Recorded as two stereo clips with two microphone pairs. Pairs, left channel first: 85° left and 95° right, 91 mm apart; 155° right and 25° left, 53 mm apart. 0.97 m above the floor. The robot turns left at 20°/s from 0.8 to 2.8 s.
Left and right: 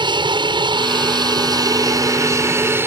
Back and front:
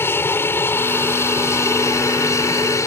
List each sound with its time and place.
0.0 s an aircraft: 115° right; by 2.9 s 155° right